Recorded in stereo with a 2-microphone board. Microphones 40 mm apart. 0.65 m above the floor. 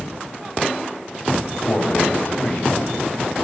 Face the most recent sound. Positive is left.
turn(degrees=50)  # may be behind; listen again after turning